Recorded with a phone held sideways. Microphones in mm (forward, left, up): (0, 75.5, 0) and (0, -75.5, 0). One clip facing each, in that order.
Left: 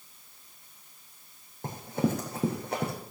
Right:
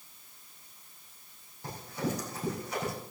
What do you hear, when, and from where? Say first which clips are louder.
1.6 s running footsteps: left 6 dB; 50° left (ahead or behind), 3.5 m; by 2.9 s 60° left (ahead or behind), 4 m